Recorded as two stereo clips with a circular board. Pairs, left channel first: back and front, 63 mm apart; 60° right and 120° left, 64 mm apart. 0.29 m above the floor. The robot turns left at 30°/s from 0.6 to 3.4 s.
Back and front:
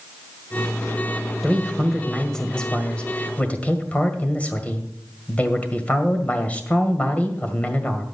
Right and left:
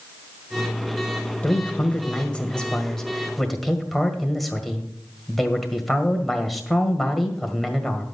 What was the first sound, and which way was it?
A man speaking, 85° right.